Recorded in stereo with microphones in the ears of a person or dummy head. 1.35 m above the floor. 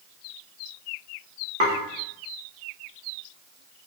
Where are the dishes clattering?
40° right (ahead or behind), 1.0 m.